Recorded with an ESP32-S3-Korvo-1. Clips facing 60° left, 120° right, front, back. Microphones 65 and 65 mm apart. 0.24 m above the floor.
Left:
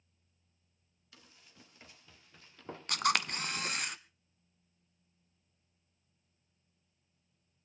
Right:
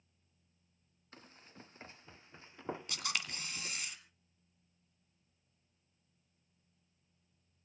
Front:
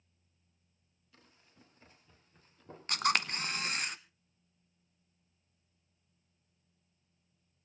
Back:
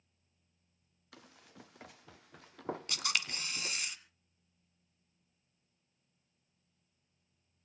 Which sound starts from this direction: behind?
Running footsteps, at 1.1 s.